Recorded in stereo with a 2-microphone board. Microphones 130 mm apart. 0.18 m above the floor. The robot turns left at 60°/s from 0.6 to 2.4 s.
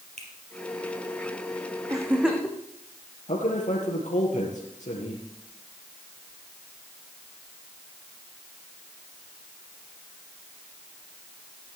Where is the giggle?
30° right (ahead or behind), 1.9 m; by 2.6 s centre (ahead or behind), 1.9 m.